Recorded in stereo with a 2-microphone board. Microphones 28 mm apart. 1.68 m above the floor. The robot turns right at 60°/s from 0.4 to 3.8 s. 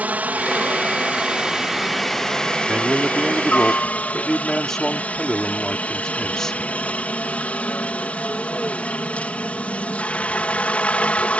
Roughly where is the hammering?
No hammering in this recording.